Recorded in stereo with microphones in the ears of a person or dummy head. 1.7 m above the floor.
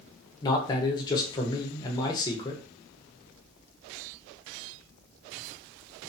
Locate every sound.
0.4 s a man speaking: 25° left (ahead or behind), 0.7 m